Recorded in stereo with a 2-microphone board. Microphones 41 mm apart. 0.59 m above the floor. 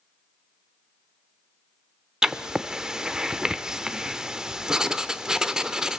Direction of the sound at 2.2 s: 15° right (ahead or behind).